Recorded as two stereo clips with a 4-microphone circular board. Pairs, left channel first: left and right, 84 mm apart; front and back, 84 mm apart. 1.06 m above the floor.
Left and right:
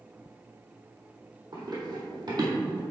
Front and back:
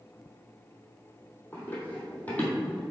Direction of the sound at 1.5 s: 60° right.